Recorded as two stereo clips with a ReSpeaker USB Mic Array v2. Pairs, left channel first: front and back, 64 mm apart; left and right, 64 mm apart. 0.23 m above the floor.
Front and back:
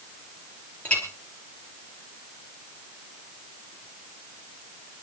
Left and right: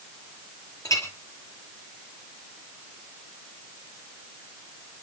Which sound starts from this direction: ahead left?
A clink, at 0.8 s.